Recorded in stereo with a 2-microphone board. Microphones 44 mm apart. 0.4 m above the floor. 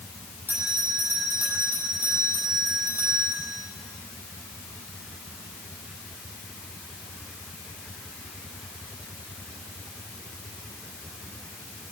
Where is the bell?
50° right (ahead or behind), 6.5 m.